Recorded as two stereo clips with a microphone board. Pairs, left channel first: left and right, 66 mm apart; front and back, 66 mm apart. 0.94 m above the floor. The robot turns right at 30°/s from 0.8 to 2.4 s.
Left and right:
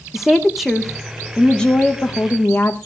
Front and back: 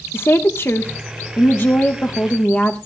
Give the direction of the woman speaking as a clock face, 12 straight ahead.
12 o'clock.